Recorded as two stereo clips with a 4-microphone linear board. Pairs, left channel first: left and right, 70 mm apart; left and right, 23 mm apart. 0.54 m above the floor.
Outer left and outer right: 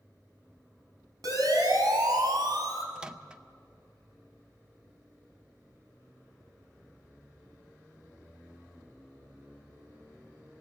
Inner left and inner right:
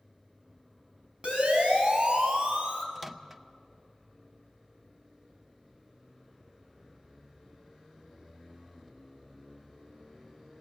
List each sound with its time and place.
1.2 s a siren: 65° right (ahead or behind), 6 m
3.0 s a microwave: 10° right (ahead or behind), 0.8 m